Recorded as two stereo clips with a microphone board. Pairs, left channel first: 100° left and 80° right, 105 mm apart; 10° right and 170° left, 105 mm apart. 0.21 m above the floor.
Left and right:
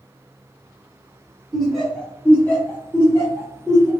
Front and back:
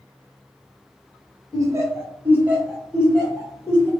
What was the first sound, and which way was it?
Laughter, 165° right.